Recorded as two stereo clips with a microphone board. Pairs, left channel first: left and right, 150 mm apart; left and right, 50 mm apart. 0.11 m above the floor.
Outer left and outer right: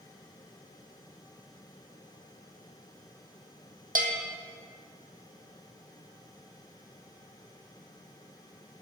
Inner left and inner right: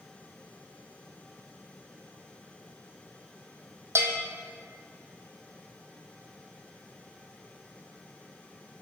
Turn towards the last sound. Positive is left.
turn(degrees=-65)  # may be behind; listen again after turning